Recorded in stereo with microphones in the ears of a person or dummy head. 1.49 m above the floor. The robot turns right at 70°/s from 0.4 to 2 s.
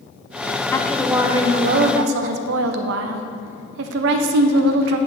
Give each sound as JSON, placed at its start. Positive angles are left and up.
{"t": 0.7, "sound": "a woman speaking", "azimuth_deg": 155, "distance_m": 0.5}